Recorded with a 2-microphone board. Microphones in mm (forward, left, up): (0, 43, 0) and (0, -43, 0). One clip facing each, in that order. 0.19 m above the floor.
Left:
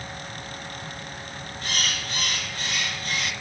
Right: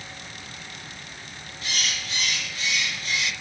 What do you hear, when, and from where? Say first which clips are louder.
1.6 s a bird: left 1 dB; 55° left (ahead or behind), 2.5 m